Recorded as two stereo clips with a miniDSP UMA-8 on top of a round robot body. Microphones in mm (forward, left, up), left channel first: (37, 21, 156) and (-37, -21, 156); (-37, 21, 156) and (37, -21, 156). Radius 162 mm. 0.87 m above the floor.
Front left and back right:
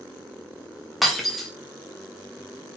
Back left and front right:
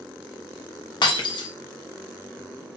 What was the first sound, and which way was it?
Breaking glass, 120° left.